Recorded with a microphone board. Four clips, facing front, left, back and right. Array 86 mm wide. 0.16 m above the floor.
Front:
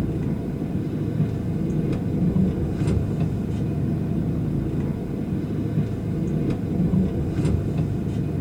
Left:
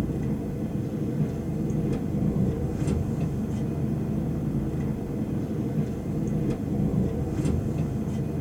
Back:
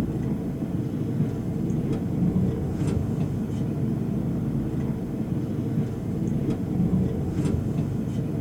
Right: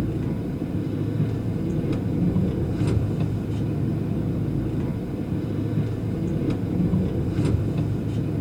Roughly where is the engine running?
Ahead right.